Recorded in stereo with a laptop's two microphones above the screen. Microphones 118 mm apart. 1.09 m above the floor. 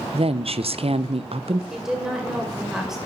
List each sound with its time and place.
0.1 s a woman speaking: 55° right (ahead or behind), 0.6 m
1.7 s a woman speaking: 5° right (ahead or behind), 5 m